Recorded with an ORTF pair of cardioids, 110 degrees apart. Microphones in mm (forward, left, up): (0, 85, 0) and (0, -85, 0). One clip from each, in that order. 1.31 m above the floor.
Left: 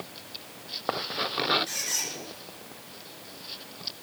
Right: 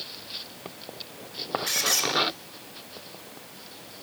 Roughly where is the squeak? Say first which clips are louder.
Right 6 dB; ahead right.